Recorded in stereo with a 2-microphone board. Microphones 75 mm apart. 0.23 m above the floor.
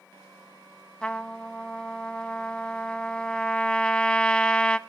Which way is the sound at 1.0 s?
15° left (ahead or behind).